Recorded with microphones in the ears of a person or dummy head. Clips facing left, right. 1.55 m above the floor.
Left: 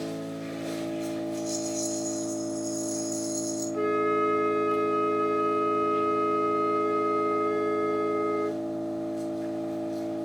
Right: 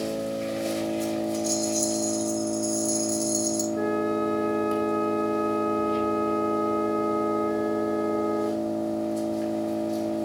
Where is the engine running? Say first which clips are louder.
Right 5 dB; 80° right, 5.5 m.